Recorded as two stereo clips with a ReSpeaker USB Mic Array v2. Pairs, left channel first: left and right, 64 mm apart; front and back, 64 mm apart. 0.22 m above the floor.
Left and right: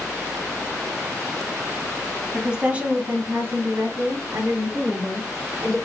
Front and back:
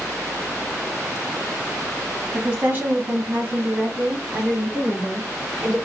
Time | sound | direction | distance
2.3 | a woman speaking | 160° right | 1.6 m